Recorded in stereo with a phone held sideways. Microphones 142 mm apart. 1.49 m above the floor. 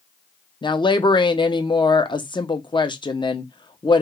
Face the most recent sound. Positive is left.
turn(degrees=35)  # may be behind; listen again after turning